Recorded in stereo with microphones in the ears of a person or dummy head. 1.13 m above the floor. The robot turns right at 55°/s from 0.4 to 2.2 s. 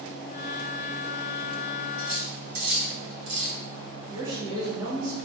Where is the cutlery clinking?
45° right (ahead or behind), 1.0 m; by 3.6 s 55° right (ahead or behind), 1.0 m.